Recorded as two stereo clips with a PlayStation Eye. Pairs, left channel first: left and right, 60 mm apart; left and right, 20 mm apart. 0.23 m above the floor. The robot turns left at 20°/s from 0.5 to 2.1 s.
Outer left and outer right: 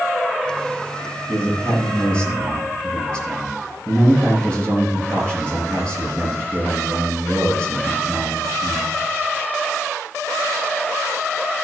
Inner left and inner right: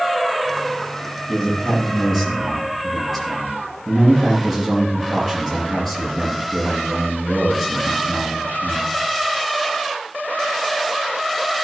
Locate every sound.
1.3 s a man speaking: 35° left (ahead or behind), 5.5 m; by 8.9 s 15° left (ahead or behind), 5.5 m